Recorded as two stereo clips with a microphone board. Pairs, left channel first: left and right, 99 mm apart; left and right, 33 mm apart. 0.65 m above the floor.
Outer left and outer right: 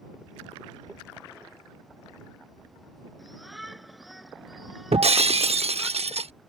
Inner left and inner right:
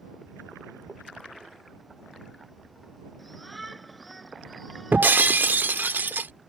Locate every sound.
3.2 s a shout: centre (ahead or behind)
4.9 s breaking glass: 80° right